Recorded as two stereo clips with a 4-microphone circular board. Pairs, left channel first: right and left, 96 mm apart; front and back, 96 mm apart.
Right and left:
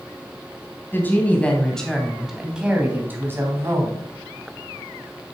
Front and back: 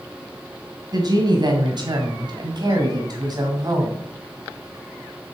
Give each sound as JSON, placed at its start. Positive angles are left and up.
{"t": 0.9, "sound": "a woman speaking", "azimuth_deg": -150, "distance_m": 2.0}